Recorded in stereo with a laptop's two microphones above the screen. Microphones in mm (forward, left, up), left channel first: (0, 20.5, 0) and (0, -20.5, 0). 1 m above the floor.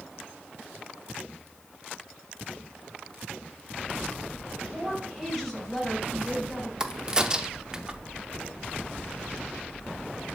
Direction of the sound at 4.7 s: 5° left (ahead or behind).